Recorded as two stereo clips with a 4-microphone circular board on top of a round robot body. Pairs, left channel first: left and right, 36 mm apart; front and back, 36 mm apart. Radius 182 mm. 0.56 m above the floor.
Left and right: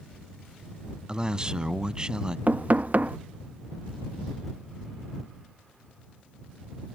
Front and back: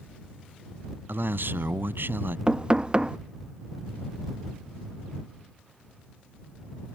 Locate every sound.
1.1 s a man speaking: 155° right
2.5 s knocking: 115° right